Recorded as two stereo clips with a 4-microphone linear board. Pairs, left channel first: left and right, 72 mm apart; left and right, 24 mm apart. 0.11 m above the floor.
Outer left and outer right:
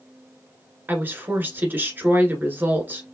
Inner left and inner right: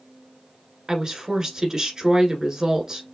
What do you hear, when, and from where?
0.9 s a woman speaking: 30° right (ahead or behind), 1.3 m